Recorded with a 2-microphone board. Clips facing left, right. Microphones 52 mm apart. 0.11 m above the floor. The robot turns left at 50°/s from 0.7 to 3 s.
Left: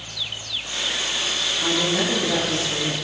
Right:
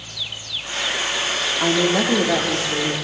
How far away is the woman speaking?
About 4.5 m.